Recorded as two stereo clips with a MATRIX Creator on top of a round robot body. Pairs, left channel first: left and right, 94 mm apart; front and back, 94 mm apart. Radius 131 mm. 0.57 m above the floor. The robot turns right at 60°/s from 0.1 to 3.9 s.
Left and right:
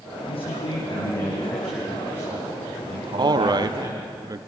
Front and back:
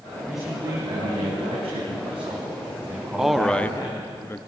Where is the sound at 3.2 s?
100° right, 0.8 m; by 4.4 s 55° right, 0.8 m.